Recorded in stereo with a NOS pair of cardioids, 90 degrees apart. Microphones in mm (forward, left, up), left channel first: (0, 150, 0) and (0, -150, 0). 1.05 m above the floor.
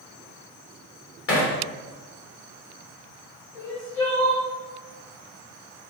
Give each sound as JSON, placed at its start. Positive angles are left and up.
{"t": 1.3, "sound": "hammering", "azimuth_deg": 45, "distance_m": 1.3}
{"t": 3.5, "sound": "crying", "azimuth_deg": 45, "distance_m": 1.8}